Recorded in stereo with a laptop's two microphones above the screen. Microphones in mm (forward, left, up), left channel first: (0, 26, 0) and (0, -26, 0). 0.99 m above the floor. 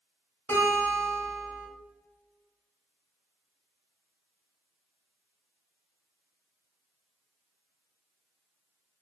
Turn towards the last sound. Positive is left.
turn(degrees=35)  # may be behind; listen again after turning